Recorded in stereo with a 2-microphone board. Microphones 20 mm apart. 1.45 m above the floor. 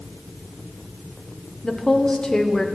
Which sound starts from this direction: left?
A woman speaking, at 1.6 s.